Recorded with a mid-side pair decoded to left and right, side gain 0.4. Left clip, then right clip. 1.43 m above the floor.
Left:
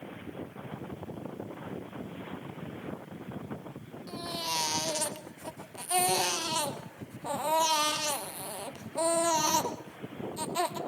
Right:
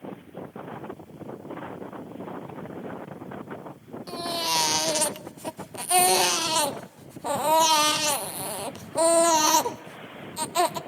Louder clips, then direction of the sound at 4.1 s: Right 7 dB; 50° right.